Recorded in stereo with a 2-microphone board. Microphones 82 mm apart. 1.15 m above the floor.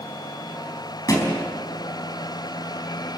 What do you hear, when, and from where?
1.1 s a thud: 45° left (ahead or behind), 4.5 m